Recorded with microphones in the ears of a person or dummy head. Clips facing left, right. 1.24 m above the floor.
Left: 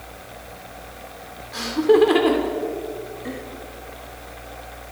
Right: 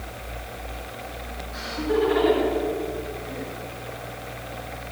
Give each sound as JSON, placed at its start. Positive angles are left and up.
{"t": 1.5, "sound": "laughter", "side_deg": 90, "distance_m": 4.0}